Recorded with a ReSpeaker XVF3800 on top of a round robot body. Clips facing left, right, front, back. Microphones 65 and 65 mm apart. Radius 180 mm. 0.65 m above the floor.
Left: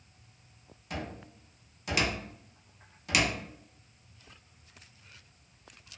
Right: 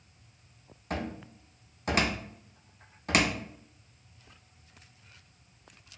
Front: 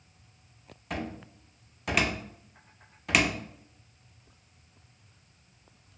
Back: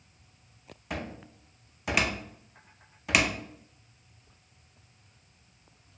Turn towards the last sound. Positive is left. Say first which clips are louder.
# right 4 dB, front 2 dB
turn(degrees=-95)